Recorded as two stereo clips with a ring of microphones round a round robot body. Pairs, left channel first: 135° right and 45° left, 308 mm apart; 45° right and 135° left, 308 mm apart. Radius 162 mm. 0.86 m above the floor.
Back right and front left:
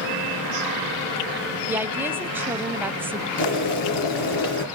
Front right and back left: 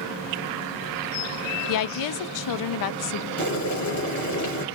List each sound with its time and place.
1.7 s a woman speaking: 40° right, 0.5 m
3.4 s boiling: 85° right, 1.8 m